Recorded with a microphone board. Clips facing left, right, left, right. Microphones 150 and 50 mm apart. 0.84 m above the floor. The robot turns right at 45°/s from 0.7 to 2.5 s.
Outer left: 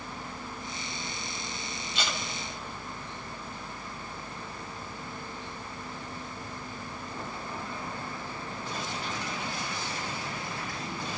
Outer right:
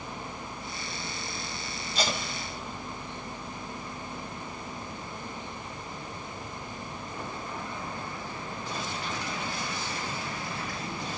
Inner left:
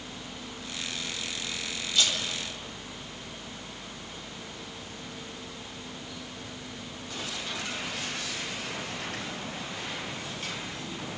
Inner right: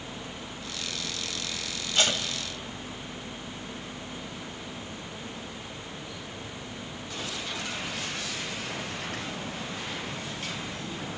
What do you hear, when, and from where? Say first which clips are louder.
1.9 s tape being pulled: outer right 5 dB, inner right 2 dB; 40° right (ahead or behind), 1.6 m; by 2.2 s 25° right (ahead or behind), 1.6 m